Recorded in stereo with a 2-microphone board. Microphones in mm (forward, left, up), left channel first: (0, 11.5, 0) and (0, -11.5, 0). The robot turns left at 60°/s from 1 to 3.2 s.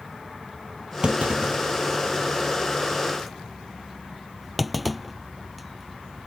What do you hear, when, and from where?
1.0 s a clunk: 45° right (ahead or behind); by 6.3 s centre (ahead or behind)